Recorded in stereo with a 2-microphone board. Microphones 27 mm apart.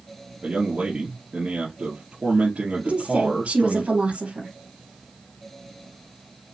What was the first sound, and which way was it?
A man speaking, 55° right (ahead or behind).